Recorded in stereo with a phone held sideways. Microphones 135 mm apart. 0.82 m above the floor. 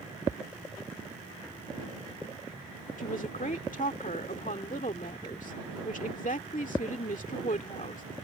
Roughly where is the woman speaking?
Left.